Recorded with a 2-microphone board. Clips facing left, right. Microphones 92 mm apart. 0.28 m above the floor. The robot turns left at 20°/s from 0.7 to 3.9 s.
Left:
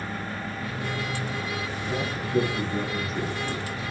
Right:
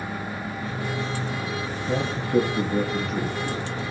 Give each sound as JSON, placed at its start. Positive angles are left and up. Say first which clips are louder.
{"t": 1.9, "sound": "a man speaking", "louder": "right 5 dB", "azimuth_deg": -85, "distance_m": 4.0}